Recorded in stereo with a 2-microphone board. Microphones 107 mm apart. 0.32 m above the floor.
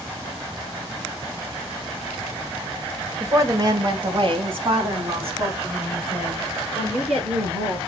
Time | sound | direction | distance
3.2 | a woman speaking | 20° right (ahead or behind) | 0.9 m